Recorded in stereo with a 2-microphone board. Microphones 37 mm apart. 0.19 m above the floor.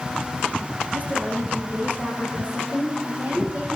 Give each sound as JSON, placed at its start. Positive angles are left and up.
{"t": 0.9, "sound": "a woman speaking", "side_deg": -45, "distance_m": 5.0}